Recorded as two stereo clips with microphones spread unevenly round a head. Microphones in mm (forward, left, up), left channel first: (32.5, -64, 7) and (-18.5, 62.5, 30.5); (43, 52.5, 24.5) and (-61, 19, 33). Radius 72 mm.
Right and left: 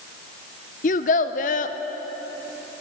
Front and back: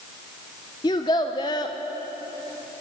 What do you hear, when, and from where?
0.8 s a child speaking: 45° right, 0.6 m